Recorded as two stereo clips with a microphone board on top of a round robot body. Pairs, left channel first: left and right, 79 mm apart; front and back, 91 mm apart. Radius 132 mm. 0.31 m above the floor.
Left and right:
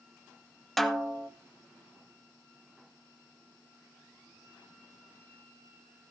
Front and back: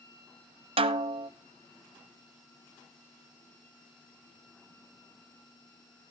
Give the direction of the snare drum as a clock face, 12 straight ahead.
6 o'clock.